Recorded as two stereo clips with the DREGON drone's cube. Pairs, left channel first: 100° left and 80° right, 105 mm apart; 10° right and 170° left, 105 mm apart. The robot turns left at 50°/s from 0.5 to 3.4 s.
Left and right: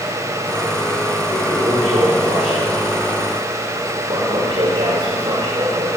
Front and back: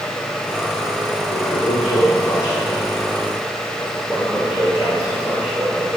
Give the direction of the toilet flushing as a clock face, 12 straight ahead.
12 o'clock.